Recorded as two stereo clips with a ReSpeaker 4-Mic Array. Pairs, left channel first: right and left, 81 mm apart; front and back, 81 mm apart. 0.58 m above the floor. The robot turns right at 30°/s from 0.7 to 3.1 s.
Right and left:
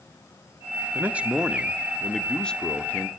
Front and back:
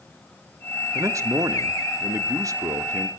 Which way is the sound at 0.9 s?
150° left.